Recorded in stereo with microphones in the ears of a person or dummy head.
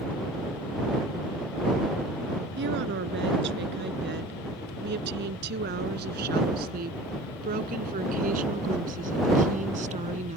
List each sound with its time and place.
2.6 s a woman speaking: 65° right (ahead or behind); by 10.4 s 40° right (ahead or behind)